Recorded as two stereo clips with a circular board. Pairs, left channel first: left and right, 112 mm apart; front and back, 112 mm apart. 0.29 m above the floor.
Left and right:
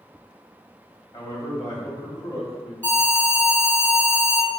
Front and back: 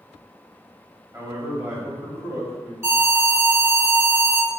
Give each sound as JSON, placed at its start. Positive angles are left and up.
{"t": 1.1, "sound": "a man speaking", "azimuth_deg": 125, "distance_m": 1.4}
{"t": 2.8, "sound": "an alarm", "azimuth_deg": 145, "distance_m": 1.7}